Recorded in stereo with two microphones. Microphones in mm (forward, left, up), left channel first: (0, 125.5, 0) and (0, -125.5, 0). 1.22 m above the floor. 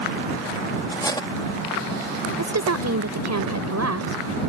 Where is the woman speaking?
80° right.